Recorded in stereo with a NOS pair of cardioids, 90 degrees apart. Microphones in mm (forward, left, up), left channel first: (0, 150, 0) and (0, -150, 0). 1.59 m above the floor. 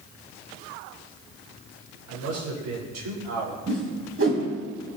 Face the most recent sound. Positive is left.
turn(degrees=-45)